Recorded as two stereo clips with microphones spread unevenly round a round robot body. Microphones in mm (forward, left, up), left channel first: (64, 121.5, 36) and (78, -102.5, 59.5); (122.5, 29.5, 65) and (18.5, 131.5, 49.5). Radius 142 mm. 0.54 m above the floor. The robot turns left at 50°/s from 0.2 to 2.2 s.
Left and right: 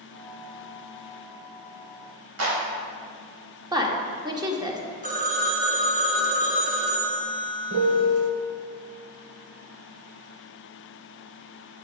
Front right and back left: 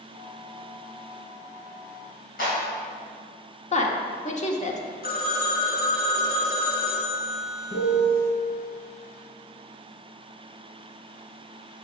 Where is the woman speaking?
15° right, 1.6 m.